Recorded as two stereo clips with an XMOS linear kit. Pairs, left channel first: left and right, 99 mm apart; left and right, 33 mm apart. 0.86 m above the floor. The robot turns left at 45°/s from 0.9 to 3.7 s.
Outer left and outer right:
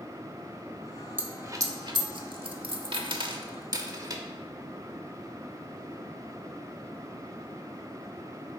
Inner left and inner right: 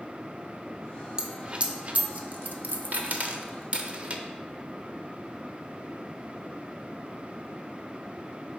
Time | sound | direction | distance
1.2 | a dropped coin | 20° right (ahead or behind) | 0.8 m